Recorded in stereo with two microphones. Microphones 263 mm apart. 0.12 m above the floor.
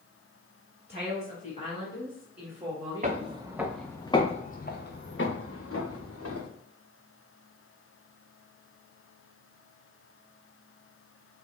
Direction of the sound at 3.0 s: 30° right (ahead or behind).